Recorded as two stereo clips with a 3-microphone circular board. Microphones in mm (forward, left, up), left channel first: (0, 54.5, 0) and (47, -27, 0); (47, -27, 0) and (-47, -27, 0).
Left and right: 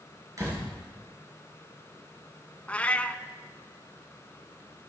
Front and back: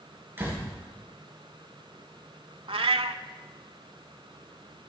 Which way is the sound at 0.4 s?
115° right.